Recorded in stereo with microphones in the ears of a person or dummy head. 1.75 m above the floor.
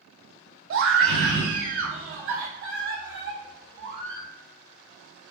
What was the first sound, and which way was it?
A scream, 80° right.